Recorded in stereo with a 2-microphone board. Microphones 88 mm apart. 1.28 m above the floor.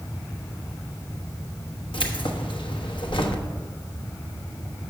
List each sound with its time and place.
1.9 s keys jangling: 70° left (ahead or behind), 1.1 m